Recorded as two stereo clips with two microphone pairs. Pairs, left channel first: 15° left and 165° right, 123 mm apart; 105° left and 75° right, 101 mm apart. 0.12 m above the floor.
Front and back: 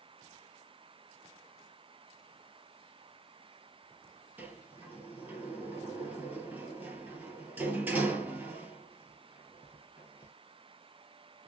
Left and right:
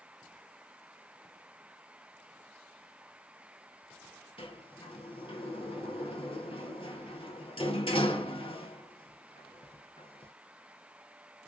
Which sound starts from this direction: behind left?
A sliding door, at 4.4 s.